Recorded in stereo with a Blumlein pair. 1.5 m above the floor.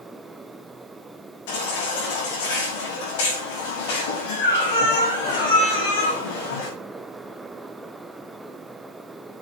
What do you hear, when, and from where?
0.0 s a fan: 5° right, 0.8 m
1.5 s a baby crying: 50° left, 6 m